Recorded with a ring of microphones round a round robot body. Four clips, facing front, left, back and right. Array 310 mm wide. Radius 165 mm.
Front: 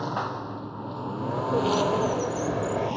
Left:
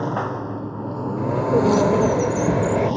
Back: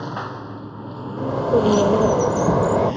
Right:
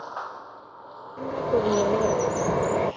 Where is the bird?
155° left.